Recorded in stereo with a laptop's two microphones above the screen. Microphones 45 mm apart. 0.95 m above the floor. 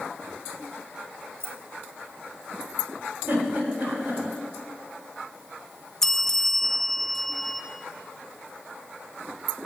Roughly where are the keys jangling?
Right.